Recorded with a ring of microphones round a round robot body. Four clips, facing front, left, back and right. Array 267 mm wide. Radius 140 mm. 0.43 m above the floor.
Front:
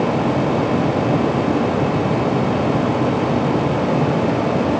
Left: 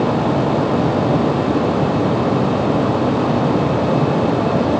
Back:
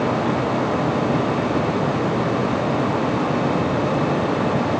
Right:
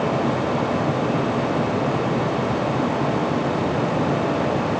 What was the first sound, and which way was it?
Only background noise.